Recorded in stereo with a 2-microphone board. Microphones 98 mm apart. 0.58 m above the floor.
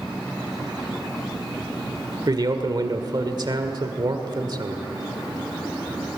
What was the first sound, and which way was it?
A man speaking, 50° right (ahead or behind).